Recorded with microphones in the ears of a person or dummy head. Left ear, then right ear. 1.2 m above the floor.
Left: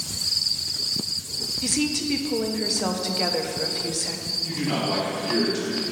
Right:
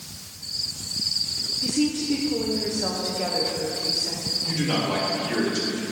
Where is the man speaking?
Centre (ahead or behind), 2.5 m.